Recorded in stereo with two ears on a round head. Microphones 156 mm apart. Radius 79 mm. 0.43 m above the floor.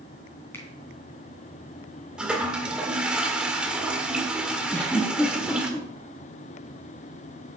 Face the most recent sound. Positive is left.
turn(degrees=10)  # may be behind; listen again after turning